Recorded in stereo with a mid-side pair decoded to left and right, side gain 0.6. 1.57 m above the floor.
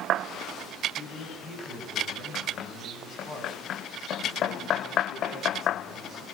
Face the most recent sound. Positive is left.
turn(degrees=35)